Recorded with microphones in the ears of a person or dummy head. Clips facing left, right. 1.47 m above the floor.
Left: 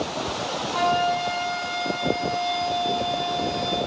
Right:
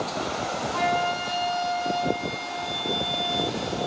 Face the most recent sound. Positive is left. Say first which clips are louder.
# left 4 dB
turn(degrees=30)  # may be behind; listen again after turning